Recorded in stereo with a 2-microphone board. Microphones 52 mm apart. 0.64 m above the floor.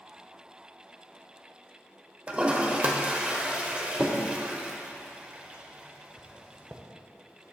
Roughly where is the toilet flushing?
Right.